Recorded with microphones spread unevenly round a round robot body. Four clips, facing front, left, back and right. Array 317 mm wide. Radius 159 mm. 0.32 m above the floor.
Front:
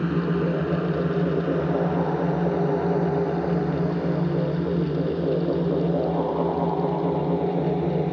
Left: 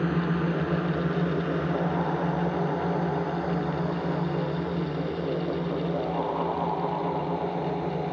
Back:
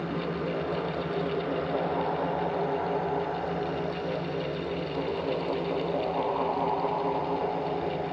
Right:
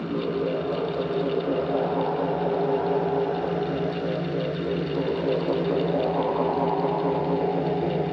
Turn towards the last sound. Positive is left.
turn(degrees=-15)